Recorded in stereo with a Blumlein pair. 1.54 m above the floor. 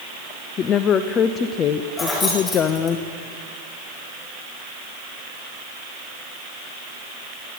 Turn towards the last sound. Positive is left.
turn(degrees=25)